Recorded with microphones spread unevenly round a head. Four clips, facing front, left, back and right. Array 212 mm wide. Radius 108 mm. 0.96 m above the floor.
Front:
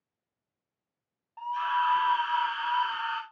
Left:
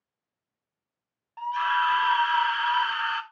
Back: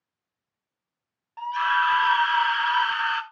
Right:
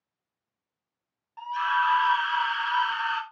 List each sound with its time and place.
1.4 s a scream: 150° left, 4 m